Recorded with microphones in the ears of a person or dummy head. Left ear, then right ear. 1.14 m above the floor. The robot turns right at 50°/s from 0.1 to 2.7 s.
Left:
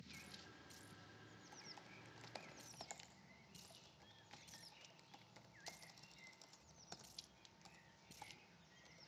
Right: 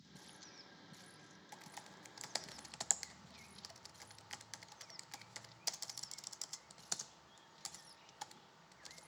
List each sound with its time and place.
1.5 s typing on a keyboard: 40° right (ahead or behind), 0.5 m; by 9.1 s 55° right (ahead or behind), 0.5 m